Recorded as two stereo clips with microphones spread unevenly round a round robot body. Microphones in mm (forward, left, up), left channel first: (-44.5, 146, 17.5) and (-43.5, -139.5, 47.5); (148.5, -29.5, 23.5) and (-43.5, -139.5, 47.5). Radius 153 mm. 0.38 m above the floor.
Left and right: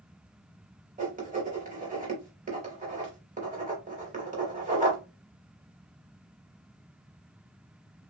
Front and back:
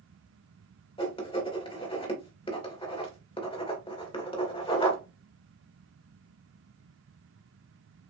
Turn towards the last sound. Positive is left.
turn(degrees=-25)